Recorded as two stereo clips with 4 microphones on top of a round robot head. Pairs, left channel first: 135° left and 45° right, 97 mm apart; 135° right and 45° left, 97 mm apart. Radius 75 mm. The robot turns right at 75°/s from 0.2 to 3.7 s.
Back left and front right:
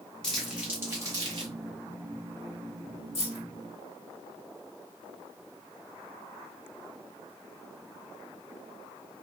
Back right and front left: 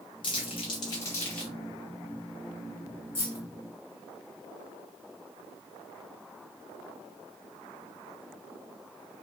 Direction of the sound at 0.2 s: 145° right.